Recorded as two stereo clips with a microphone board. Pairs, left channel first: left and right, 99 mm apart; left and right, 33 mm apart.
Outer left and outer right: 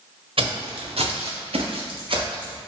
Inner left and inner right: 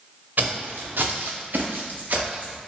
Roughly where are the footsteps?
Right.